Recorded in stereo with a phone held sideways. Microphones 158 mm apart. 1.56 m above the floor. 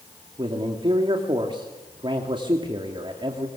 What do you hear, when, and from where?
0.4 s a man speaking: 30° right (ahead or behind), 3 m